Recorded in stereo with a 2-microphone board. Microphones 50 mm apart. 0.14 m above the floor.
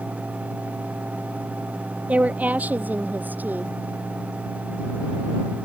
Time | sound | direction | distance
2.1 | a woman speaking | 30° right (ahead or behind) | ?